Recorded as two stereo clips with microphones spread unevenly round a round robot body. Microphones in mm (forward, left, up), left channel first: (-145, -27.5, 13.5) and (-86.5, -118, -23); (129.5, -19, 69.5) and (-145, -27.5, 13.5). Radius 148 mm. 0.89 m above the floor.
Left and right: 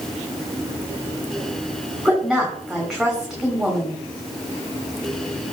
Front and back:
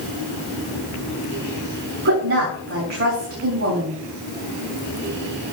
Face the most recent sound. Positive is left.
turn(degrees=-140)